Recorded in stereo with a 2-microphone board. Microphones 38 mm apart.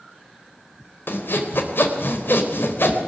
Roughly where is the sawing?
Left.